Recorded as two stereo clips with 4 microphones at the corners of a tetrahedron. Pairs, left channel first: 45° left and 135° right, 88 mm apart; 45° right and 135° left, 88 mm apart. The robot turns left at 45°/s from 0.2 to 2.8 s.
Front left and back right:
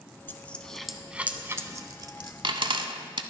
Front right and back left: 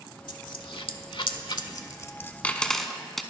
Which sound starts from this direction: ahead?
A dropped coin, at 0.3 s.